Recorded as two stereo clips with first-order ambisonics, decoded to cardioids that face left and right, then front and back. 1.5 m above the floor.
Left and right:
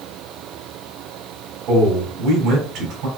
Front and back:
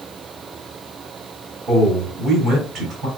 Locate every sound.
1.7 s a man speaking: 130° right, 2.5 m